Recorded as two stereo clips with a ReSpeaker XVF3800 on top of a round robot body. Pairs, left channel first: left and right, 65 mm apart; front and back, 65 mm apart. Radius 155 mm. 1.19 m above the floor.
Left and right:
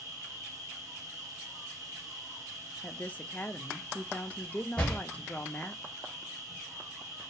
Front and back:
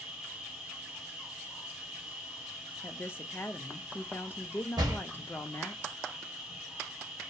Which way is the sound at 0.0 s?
100° right.